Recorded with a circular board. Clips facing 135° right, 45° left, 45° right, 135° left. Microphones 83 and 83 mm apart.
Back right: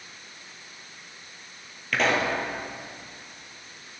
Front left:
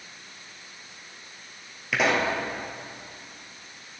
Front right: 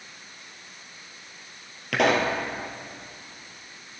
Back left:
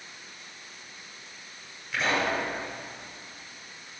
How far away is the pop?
About 2.0 m.